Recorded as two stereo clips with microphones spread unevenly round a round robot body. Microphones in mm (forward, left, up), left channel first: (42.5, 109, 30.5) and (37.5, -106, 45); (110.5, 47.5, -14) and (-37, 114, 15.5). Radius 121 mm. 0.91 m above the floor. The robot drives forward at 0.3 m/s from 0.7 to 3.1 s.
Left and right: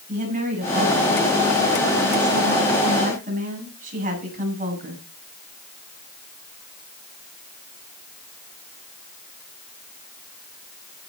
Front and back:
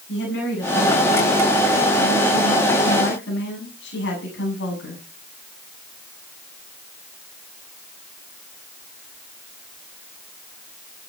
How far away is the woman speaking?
About 8.5 m.